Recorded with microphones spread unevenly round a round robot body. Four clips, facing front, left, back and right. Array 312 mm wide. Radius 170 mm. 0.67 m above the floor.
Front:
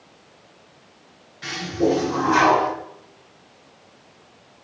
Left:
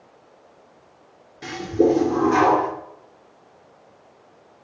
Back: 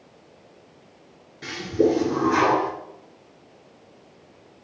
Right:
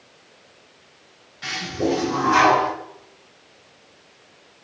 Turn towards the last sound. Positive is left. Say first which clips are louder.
# left 6 dB, back 1 dB
turn(degrees=120)